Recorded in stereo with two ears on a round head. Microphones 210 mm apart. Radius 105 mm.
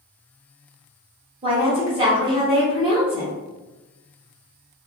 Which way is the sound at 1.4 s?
25° right (ahead or behind).